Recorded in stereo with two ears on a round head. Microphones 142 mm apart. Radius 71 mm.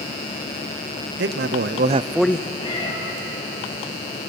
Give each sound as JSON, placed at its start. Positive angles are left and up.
{"t": 1.2, "sound": "a man speaking", "side_deg": -80, "distance_m": 1.2}
{"t": 2.6, "sound": "a cat meowing", "side_deg": 35, "distance_m": 6.0}